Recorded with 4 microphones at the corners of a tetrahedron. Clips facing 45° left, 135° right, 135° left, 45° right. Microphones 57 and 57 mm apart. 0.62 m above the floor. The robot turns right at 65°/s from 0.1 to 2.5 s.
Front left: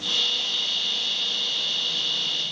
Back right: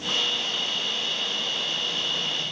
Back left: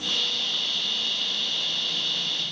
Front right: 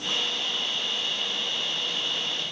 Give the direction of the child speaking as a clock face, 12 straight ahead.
No child speaking in this recording.